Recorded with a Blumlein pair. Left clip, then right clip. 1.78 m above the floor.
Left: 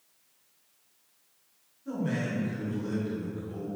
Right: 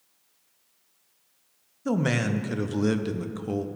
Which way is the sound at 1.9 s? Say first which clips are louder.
Right 7 dB; 40° right.